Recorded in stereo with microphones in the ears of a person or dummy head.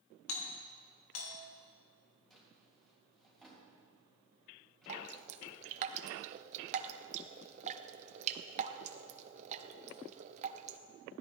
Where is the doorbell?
80° left, 2.5 m.